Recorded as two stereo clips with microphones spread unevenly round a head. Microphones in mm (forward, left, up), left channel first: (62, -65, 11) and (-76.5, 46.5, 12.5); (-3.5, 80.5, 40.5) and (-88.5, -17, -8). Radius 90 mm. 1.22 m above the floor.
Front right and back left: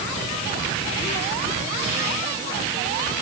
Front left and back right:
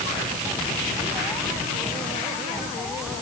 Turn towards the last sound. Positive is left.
No sound to turn to.